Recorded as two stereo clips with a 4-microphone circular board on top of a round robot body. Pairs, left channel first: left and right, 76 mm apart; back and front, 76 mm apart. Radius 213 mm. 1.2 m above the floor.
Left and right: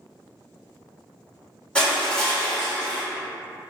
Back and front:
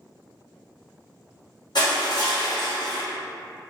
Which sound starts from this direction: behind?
Crushing, at 1.8 s.